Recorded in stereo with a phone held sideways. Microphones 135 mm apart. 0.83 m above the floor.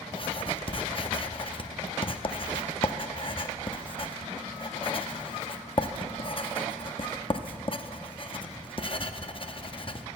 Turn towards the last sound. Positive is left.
turn(degrees=40)  # may be behind; listen again after turning